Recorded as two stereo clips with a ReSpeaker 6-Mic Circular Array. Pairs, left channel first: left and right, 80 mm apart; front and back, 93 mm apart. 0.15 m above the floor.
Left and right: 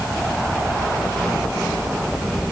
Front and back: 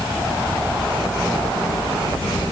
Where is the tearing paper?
I don't hear tearing paper.